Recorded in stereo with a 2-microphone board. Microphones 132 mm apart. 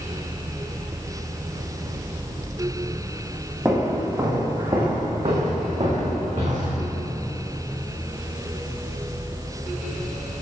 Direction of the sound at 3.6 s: 20° right (ahead or behind).